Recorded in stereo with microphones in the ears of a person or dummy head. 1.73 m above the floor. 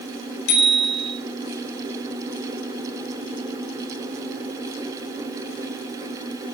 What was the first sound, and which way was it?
A bicycle bell, 80° left.